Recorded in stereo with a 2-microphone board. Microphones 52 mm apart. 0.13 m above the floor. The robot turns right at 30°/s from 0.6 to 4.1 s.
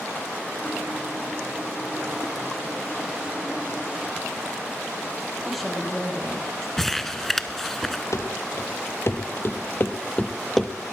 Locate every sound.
5.5 s a woman speaking: centre (ahead or behind), 4.5 m
6.8 s crumpling: 10° left (ahead or behind), 0.6 m
8.1 s running footsteps: 65° left (ahead or behind), 1.9 m; by 10.7 s centre (ahead or behind), 0.9 m